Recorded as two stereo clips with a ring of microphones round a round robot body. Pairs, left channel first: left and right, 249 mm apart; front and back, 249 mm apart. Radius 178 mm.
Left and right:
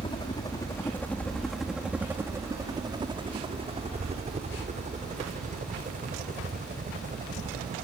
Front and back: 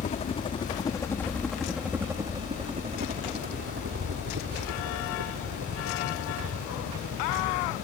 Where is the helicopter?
35° left; by 7.8 s 145° right.